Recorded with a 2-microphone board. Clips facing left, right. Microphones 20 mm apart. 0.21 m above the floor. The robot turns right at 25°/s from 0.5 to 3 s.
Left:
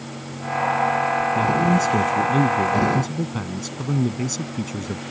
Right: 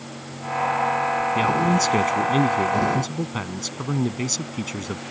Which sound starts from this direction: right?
A man speaking, at 1.4 s.